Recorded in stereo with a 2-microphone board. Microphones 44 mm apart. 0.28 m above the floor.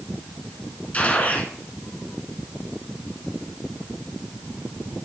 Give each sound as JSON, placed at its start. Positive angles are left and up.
{"t": 0.9, "sound": "a gunshot", "side_deg": 30, "distance_m": 1.2}